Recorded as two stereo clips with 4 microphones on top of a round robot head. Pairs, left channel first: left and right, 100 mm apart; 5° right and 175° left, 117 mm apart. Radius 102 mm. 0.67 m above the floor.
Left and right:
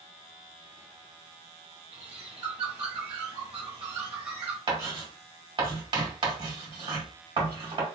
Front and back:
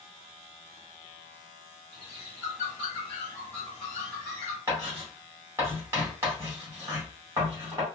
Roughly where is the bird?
Right.